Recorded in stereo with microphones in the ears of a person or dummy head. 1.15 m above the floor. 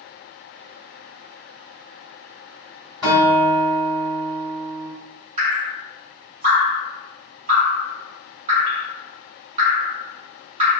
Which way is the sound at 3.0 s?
15° right (ahead or behind).